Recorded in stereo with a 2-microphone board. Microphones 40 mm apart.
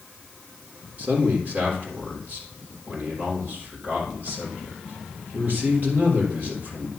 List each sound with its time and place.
1.0 s a man speaking: 55° right (ahead or behind), 3.5 m